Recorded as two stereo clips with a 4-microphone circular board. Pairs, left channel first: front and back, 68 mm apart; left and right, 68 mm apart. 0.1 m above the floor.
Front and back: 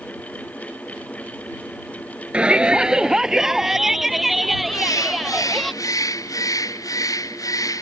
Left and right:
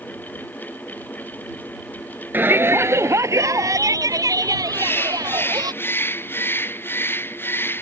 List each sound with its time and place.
2.3 s a shout: 120° right; by 5.7 s 85° right
4.7 s a bird: 30° left